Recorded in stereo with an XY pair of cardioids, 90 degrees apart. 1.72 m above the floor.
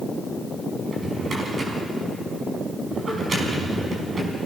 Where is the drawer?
40° right, 5 m.